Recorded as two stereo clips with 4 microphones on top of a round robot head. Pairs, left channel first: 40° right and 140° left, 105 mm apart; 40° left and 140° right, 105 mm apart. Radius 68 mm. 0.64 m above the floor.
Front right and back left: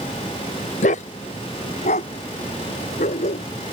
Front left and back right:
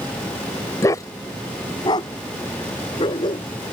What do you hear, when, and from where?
0.8 s a dog barking: 25° right; by 3.5 s 10° right